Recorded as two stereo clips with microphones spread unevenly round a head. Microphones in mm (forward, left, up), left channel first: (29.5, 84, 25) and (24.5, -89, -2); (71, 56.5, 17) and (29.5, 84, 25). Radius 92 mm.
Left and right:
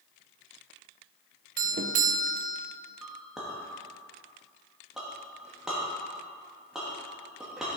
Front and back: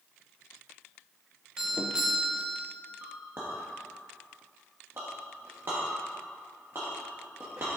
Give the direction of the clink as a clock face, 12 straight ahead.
6 o'clock.